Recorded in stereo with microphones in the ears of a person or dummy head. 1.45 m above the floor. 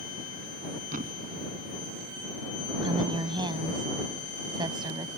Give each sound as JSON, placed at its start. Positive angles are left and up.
{"t": 0.9, "sound": "a thud", "side_deg": -55}
{"t": 2.8, "sound": "a woman speaking", "side_deg": -20}